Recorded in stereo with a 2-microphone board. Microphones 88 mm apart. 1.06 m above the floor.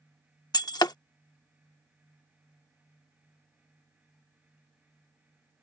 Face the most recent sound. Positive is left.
turn(degrees=50)  # may be behind; listen again after turning